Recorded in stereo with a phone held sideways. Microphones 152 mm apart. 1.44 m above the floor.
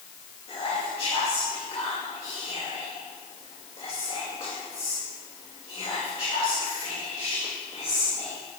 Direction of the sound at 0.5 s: 40° left (ahead or behind).